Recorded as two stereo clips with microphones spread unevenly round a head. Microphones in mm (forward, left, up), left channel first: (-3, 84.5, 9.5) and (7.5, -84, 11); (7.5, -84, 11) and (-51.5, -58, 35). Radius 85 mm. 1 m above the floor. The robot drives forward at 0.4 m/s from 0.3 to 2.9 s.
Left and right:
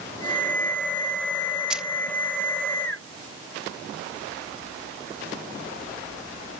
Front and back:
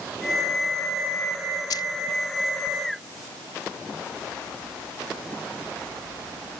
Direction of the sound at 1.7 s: Straight ahead.